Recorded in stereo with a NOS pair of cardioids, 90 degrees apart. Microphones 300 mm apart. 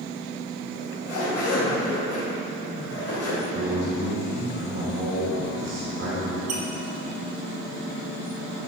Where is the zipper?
55° left, 1.9 m.